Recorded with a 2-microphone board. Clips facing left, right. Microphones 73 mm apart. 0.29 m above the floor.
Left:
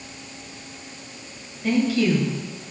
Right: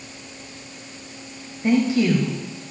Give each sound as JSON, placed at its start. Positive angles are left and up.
{"t": 1.6, "sound": "a woman speaking", "side_deg": -25, "distance_m": 1.3}